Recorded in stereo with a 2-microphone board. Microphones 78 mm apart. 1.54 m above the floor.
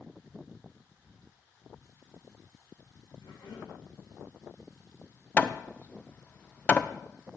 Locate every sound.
3.2 s a cough: 80° left, 3.5 m
5.4 s hammering: 20° left (ahead or behind), 0.5 m